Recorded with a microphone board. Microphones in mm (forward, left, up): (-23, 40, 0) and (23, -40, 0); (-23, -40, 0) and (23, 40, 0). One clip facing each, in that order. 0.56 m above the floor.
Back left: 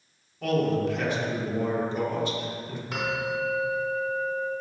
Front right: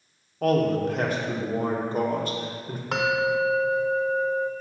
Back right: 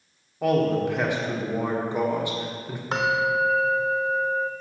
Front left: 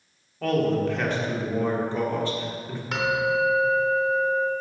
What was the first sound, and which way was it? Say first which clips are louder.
A man speaking: front right 3 dB, back right 1 dB; 50° right.